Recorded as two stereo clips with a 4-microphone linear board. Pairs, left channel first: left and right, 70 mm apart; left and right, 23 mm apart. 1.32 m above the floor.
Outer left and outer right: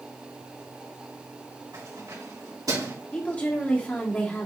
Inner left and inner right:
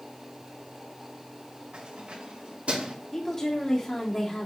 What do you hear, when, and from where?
1.7 s keys jangling: 60° right (ahead or behind), 4 m
3.1 s a woman speaking: 25° left (ahead or behind), 2.5 m